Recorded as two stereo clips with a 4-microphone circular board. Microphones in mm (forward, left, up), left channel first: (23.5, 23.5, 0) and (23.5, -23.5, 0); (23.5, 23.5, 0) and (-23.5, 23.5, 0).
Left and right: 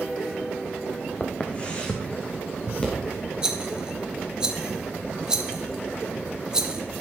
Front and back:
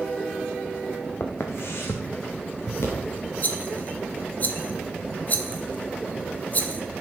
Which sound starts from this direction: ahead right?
A rattle, at 3.4 s.